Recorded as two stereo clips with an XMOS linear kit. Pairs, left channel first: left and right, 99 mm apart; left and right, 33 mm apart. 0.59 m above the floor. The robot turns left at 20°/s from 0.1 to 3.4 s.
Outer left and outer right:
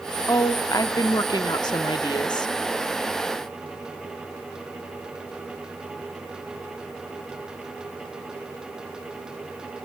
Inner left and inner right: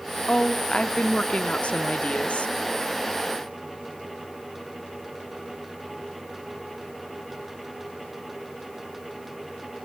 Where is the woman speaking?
130° left, 0.9 m; by 2.5 s 85° left, 0.9 m.